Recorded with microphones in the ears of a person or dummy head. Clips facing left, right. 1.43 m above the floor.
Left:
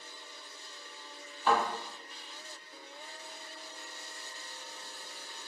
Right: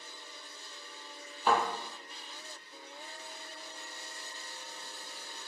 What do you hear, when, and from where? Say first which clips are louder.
1.5 s a thud: even; 15° right (ahead or behind), 1.5 m